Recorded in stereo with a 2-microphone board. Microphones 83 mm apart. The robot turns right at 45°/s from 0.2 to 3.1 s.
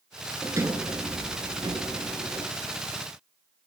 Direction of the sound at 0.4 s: 145° right.